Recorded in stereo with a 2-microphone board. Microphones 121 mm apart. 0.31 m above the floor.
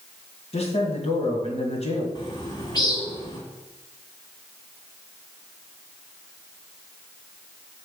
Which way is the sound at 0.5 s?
60° left (ahead or behind).